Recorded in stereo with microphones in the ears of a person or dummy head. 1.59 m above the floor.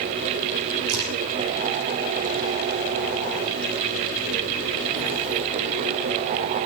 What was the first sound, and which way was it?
A crack, 75° right (ahead or behind).